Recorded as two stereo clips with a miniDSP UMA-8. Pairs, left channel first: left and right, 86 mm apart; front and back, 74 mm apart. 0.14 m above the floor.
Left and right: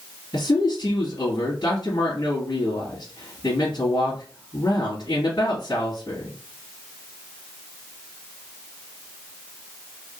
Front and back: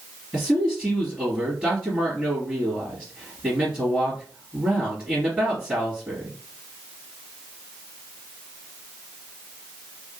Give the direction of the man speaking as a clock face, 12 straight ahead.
8 o'clock.